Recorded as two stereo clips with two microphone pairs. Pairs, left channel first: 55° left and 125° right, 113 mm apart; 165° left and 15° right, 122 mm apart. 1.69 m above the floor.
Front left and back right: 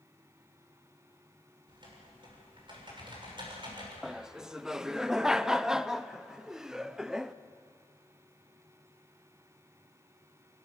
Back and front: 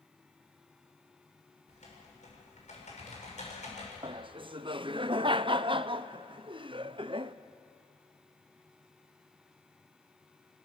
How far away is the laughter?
About 0.5 m.